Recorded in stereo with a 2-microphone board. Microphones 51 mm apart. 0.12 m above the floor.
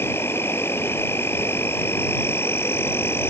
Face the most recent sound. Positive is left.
turn(degrees=50)  # may be behind; listen again after turning